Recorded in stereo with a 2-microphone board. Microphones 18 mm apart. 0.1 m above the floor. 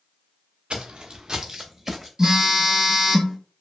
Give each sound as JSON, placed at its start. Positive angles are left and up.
{"t": 0.7, "sound": "footsteps", "side_deg": -60, "distance_m": 0.7}
{"t": 2.2, "sound": "a phone buzzing", "side_deg": -30, "distance_m": 1.8}